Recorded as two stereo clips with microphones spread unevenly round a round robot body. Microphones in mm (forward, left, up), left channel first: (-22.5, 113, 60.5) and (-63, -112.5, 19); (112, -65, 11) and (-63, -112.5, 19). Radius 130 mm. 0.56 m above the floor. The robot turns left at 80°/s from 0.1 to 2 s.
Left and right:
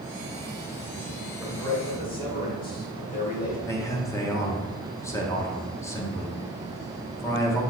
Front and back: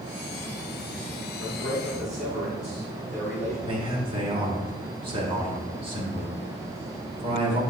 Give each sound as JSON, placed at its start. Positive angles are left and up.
{"t": 1.4, "sound": "a man speaking", "azimuth_deg": 180, "distance_m": 2.5}
{"t": 3.7, "sound": "a man speaking", "azimuth_deg": 165, "distance_m": 1.3}